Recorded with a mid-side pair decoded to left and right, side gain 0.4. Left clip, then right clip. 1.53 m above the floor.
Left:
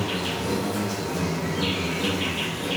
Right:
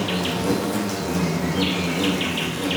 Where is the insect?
60° right, 0.8 m.